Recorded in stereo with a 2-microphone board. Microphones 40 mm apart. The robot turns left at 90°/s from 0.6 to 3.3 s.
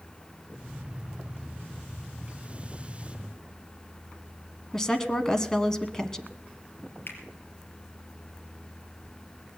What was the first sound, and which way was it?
A woman speaking, 15° left (ahead or behind).